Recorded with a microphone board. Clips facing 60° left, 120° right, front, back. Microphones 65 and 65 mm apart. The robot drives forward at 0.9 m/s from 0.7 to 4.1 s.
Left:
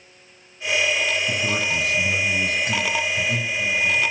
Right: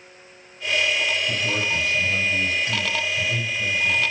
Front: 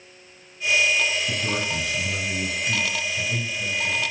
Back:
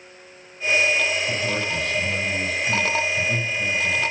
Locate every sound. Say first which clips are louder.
1.3 s a man speaking: left 1 dB, back 2 dB; 55° left, 2.5 m; by 4.0 s 135° left, 2.5 m